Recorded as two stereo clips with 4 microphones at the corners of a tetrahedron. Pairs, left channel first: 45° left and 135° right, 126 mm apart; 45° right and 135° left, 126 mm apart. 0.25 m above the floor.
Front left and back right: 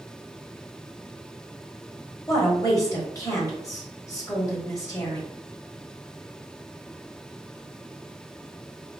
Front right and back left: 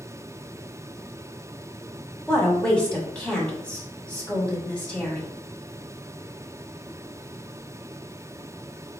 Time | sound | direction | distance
2.3 | a woman speaking | 25° left | 1.6 m